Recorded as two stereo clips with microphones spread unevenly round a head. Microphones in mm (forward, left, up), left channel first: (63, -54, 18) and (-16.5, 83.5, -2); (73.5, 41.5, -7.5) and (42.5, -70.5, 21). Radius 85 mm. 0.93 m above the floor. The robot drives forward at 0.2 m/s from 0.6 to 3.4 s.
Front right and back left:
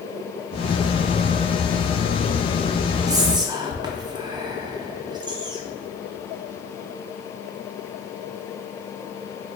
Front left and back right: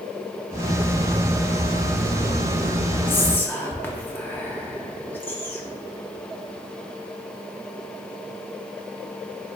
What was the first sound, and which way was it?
Whispering, 90° left.